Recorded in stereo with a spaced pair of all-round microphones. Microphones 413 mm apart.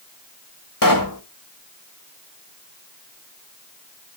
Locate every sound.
0.8 s a pop: 50° left (ahead or behind), 1.5 m